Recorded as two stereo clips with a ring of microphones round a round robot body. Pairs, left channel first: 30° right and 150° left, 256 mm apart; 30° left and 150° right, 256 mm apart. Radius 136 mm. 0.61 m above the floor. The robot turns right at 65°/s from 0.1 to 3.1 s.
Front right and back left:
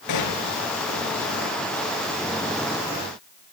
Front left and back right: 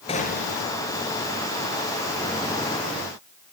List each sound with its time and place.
0.1 s a gunshot: 40° right, 4.5 m; by 0.6 s 10° right, 4.5 m